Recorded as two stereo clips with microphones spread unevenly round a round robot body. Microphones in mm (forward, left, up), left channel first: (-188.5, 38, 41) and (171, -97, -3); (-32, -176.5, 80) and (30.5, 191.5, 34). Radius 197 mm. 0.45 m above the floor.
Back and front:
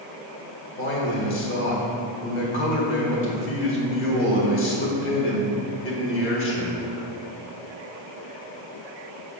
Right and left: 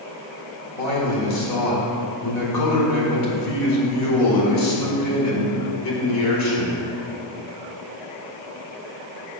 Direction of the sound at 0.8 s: 145° right.